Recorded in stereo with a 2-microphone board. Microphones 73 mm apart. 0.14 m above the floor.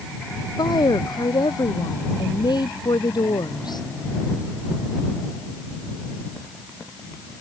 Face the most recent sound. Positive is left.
turn(degrees=75)  # may be behind; listen again after turning